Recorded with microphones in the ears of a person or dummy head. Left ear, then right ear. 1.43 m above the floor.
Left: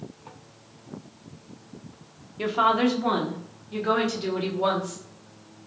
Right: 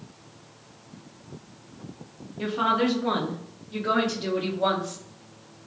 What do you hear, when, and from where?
2.4 s a woman speaking: 25° left (ahead or behind), 0.6 m; by 5.0 s 15° left (ahead or behind), 1.9 m